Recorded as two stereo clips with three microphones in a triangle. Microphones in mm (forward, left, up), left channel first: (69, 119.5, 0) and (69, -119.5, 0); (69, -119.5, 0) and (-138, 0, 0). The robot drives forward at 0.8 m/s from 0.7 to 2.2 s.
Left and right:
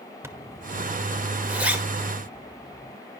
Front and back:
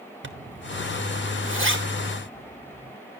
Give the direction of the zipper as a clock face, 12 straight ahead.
6 o'clock.